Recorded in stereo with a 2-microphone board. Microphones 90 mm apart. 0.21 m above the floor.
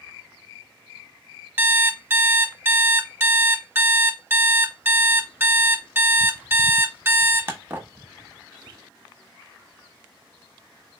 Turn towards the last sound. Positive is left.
turn(degrees=-25)  # may be behind; listen again after turning